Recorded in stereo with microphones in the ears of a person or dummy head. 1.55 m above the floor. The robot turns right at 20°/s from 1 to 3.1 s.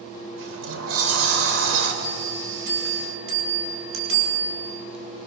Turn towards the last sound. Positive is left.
turn(degrees=-70)  # may be behind; listen again after turning